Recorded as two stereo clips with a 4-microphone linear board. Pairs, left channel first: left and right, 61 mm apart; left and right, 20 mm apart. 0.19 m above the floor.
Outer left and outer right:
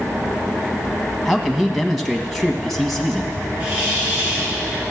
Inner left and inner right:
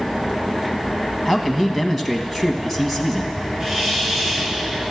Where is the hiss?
20° right (ahead or behind), 3 m.